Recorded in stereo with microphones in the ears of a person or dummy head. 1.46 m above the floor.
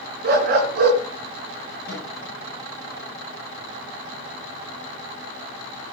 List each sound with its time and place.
0.2 s a dog barking: 50° right (ahead or behind), 4 m
1.9 s a microwave: 60° left (ahead or behind), 8.5 m